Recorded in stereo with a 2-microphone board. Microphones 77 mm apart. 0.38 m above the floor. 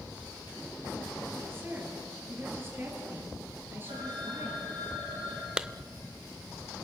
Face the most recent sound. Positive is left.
turn(degrees=-10)  # may be behind; listen again after turning